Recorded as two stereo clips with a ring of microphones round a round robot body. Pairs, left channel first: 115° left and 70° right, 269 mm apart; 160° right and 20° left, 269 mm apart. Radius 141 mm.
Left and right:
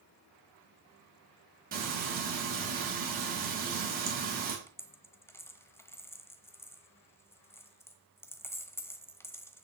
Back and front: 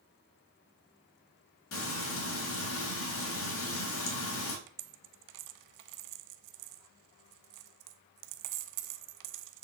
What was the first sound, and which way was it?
Frying, 125° right.